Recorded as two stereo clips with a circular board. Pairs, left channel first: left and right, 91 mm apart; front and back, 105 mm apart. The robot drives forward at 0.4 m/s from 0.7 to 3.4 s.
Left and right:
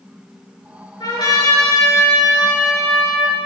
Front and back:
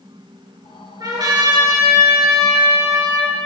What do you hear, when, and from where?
1.0 s a trumpet: 130° left, 6 m; by 3.3 s 135° left, 6.5 m